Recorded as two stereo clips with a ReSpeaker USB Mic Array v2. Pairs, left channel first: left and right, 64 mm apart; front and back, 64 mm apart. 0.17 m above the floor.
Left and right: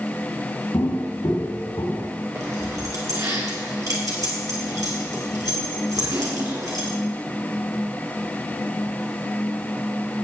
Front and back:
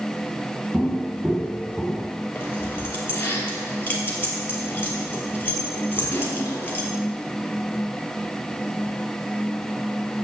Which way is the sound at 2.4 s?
55° right.